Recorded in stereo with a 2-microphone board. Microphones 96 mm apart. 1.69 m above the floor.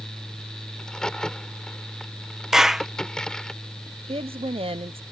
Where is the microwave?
No microwave in this recording.